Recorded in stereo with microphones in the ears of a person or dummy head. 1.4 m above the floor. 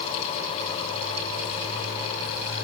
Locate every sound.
Only background noise.